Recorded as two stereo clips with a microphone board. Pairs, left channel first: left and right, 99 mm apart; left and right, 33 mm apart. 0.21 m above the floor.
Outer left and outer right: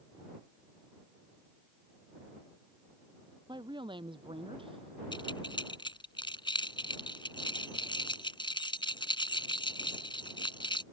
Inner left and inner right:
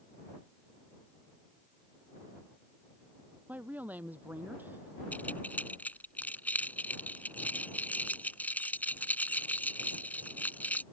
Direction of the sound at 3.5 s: 50° right (ahead or behind).